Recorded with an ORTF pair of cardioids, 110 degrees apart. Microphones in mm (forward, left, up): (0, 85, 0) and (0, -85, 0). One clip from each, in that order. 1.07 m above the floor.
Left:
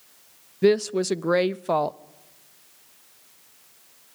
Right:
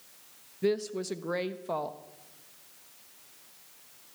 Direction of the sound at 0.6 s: 45° left.